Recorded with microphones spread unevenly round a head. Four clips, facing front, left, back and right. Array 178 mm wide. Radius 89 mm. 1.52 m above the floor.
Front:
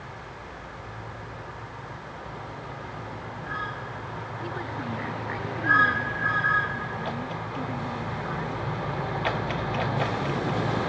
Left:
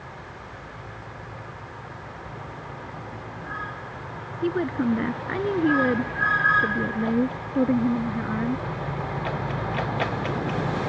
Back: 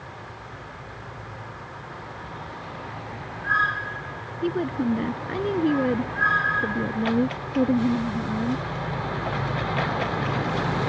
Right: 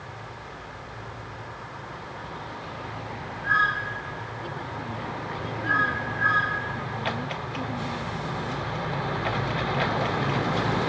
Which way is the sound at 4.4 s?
130° left.